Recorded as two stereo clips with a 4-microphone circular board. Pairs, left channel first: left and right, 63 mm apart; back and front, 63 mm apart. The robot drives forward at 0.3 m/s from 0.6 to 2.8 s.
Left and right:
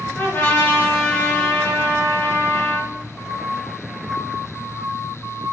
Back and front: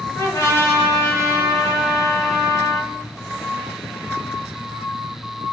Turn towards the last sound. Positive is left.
turn(degrees=160)